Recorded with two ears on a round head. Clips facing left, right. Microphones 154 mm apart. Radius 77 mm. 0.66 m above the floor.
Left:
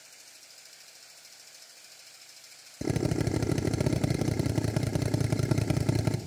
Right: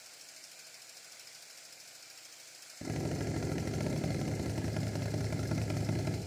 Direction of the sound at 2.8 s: 65° left (ahead or behind).